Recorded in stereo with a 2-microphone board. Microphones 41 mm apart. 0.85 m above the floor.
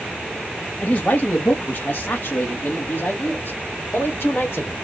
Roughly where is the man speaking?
Left.